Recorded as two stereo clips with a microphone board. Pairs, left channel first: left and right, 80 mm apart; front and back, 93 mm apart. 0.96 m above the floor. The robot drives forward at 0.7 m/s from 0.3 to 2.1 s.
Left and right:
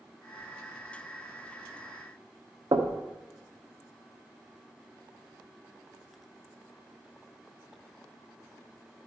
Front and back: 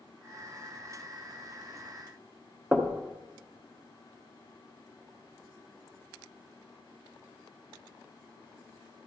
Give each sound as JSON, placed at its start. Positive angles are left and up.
{"t": 2.7, "sound": "knocking", "azimuth_deg": -105, "distance_m": 0.9}